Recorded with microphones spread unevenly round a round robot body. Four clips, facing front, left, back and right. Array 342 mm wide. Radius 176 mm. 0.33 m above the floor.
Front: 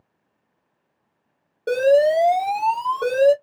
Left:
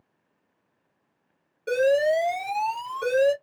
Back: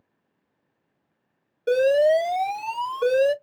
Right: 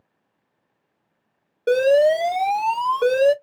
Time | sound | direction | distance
1.7 | an alarm | 90° right | 1.9 m